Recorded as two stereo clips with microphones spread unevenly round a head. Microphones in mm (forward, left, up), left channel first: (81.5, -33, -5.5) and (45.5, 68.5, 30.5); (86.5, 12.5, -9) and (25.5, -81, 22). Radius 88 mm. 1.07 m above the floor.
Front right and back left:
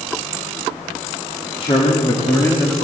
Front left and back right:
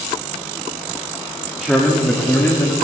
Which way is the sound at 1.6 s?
35° right.